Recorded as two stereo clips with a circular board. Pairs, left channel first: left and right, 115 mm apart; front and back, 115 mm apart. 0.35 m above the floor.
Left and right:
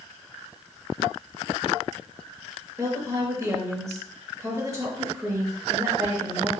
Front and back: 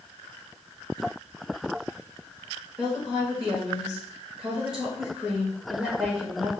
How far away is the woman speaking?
About 0.9 m.